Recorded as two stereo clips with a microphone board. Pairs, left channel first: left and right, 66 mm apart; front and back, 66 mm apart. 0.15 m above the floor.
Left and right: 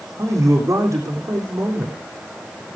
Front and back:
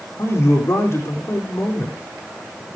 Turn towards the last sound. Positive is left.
turn(degrees=-50)